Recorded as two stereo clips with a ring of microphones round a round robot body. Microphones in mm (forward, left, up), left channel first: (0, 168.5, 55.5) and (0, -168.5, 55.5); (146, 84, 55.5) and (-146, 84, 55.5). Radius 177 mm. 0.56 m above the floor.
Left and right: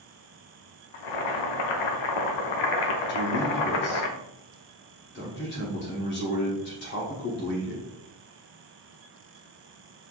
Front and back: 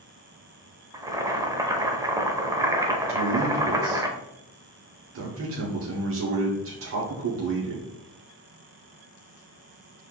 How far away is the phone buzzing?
I don't hear a phone buzzing.